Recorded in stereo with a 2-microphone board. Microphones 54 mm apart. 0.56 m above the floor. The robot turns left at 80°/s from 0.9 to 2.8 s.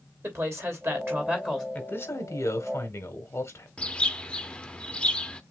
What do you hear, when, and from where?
0.2 s a woman speaking: 120° right, 2.5 m; by 1.6 s straight behind, 2.5 m
1.7 s a man speaking: 150° left, 1.4 m; by 3.7 s 65° left, 1.4 m
3.8 s a bird: 20° left (ahead or behind), 0.6 m